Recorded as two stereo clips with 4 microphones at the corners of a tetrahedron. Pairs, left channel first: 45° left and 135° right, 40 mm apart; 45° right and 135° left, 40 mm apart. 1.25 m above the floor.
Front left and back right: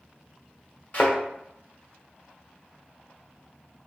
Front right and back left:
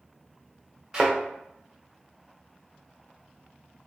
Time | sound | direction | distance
0.9 | a thud | 60° left | 1.3 m